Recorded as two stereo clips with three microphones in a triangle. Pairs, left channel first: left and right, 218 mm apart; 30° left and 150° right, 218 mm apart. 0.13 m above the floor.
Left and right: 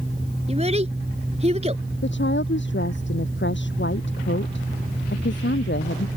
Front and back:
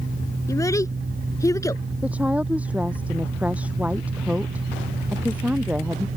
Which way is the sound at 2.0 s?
125° left.